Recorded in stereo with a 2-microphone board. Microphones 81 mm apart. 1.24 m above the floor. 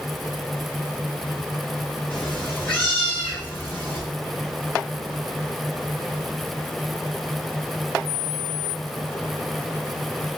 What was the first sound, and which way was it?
A cat meowing, 15° left (ahead or behind).